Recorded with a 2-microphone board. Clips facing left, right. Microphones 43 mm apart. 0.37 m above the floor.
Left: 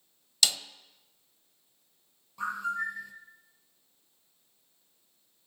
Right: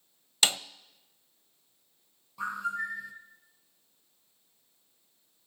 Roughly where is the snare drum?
Right.